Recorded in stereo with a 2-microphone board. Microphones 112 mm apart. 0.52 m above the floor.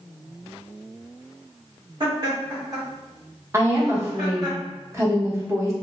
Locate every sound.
2.0 s laughter: 45° right (ahead or behind), 1.6 m; by 4.5 s 30° right (ahead or behind), 2.0 m
3.5 s a woman speaking: 25° right (ahead or behind), 0.7 m